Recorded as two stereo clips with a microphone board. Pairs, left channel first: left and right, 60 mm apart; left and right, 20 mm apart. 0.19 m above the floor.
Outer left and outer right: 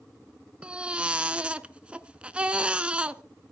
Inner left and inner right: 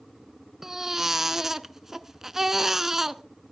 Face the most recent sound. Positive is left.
turn(degrees=-15)  # may be behind; listen again after turning